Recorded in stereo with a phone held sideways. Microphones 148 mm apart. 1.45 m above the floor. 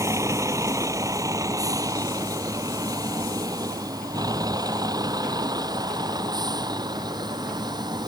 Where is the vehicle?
20° right (ahead or behind); by 8.1 s 25° right (ahead or behind).